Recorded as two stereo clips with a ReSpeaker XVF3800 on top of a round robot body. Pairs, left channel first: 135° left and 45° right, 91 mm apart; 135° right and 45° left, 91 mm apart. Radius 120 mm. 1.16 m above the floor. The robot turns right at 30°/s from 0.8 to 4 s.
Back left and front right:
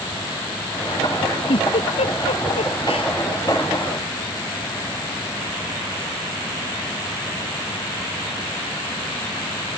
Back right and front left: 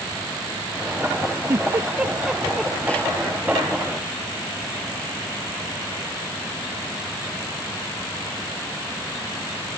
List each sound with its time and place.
1.5 s a giggle: 105° left; by 3.1 s 155° left